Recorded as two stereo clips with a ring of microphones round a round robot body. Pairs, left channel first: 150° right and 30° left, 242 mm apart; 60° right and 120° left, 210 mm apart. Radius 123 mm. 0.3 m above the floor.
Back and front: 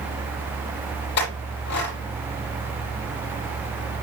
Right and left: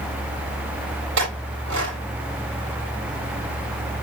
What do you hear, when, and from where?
1.2 s a clink: 165° left, 8.5 m